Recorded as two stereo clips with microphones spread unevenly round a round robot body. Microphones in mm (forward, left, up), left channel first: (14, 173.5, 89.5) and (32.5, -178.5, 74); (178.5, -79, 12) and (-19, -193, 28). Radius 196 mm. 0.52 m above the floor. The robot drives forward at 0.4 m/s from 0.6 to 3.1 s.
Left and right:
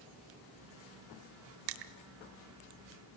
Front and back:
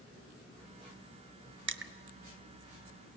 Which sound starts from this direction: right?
Crushing, at 1.7 s.